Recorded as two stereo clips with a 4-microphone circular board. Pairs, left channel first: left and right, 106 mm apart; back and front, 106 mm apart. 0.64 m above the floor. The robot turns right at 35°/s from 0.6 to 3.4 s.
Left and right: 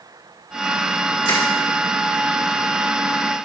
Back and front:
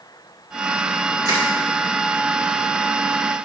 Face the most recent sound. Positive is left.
turn(degrees=125)